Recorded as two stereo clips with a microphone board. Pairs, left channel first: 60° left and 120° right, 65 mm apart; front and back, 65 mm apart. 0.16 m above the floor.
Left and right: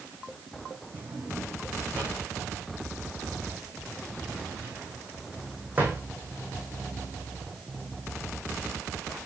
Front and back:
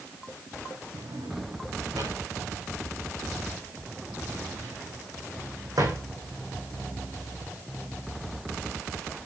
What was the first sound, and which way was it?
A drawer, 175° left.